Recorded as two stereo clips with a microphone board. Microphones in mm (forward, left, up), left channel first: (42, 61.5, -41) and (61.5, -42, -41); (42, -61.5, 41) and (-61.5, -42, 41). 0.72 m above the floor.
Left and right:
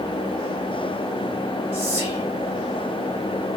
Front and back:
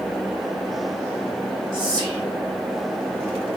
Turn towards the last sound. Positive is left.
turn(degrees=-155)